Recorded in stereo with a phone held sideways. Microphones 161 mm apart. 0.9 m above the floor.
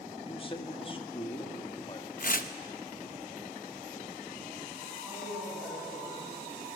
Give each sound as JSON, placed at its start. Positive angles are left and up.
{"t": 0.2, "sound": "a man speaking", "side_deg": 35, "distance_m": 1.9}
{"t": 2.2, "sound": "tearing paper", "side_deg": 60, "distance_m": 1.1}
{"t": 5.0, "sound": "a woman speaking", "side_deg": -15, "distance_m": 7.5}